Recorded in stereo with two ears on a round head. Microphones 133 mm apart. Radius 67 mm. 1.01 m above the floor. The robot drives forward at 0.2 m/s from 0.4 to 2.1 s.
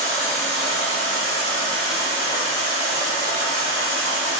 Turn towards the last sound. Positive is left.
turn(degrees=65)  # may be behind; listen again after turning